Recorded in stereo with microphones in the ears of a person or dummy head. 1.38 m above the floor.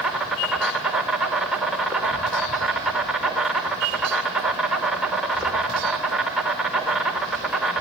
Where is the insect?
Centre (ahead or behind), 2 m.